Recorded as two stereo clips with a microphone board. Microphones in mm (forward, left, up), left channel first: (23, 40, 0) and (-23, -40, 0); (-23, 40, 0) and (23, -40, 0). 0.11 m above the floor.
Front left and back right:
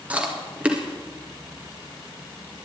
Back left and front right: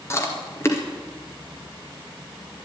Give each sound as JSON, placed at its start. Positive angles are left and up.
{"t": 0.1, "sound": "chewing", "azimuth_deg": 170, "distance_m": 2.0}